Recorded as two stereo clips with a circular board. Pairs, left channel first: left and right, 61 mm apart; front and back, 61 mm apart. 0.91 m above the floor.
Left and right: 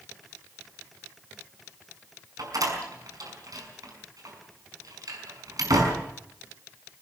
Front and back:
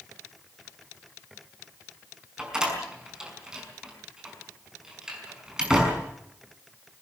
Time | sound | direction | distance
2.4 | a door slam | 100° right | 5.5 m